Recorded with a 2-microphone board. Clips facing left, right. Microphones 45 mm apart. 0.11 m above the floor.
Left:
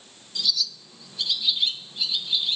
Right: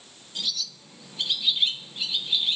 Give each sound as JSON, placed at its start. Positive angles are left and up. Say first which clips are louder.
{"t": 0.3, "sound": "a bird", "louder": "left 4 dB", "side_deg": -30, "distance_m": 2.0}